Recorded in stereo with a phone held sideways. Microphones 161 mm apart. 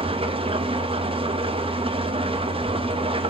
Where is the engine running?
35° right (ahead or behind), 0.8 m.